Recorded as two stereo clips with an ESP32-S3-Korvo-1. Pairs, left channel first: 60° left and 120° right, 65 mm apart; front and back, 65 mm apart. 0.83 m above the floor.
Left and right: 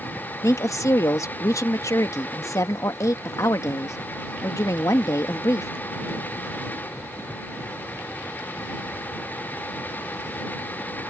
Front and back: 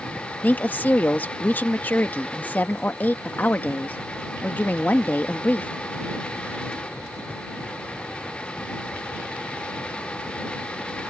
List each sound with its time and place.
0.4 s a woman speaking: 55° left